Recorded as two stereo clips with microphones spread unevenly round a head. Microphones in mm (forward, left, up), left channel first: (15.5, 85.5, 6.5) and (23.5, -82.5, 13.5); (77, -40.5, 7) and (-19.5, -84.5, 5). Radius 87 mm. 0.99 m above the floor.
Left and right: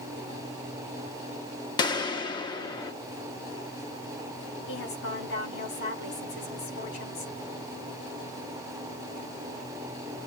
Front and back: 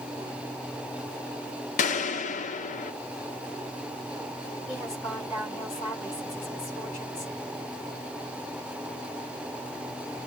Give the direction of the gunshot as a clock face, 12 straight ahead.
11 o'clock.